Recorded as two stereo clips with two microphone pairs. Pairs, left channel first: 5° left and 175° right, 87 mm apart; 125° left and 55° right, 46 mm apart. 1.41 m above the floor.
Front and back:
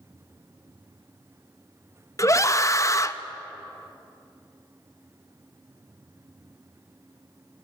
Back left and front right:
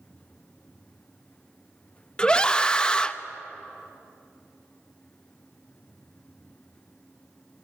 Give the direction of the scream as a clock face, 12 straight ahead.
10 o'clock.